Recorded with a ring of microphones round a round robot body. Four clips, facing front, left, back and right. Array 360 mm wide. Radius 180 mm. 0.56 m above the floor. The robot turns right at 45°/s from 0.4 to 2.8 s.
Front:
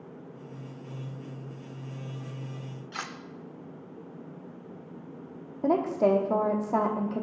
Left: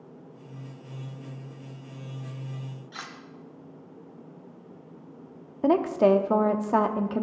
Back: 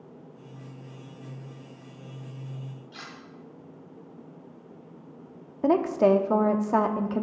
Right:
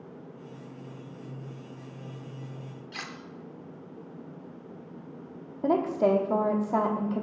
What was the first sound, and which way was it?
Cutlery clinking, 10° right.